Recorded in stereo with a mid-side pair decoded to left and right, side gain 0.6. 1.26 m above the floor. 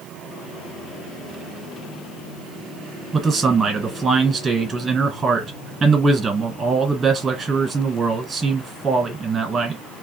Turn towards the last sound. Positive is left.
turn(degrees=-25)